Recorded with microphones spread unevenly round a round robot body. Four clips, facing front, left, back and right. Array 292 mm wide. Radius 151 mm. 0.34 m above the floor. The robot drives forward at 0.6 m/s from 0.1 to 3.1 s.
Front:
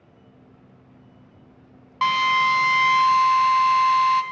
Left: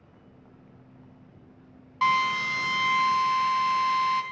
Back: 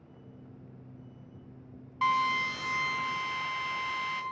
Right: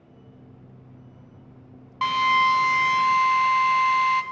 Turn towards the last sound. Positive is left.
turn(degrees=-60)